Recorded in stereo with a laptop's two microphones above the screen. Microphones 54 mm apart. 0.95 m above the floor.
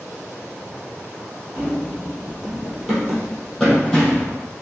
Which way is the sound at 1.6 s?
35° right (ahead or behind).